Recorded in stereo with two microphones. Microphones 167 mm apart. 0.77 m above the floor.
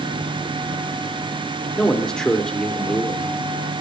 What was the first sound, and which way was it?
A man speaking, 5° left (ahead or behind).